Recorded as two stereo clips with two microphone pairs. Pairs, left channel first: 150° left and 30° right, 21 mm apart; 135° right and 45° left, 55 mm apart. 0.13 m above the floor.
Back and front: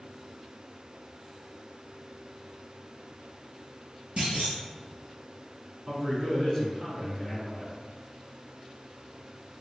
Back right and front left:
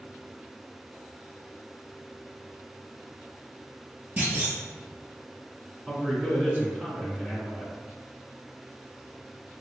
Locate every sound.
4.2 s a clunk: 10° right, 2.0 m
5.9 s a man speaking: 10° right, 1.7 m